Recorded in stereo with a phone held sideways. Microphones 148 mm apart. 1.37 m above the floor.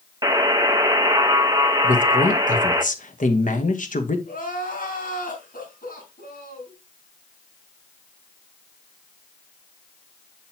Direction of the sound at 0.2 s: 25° right (ahead or behind).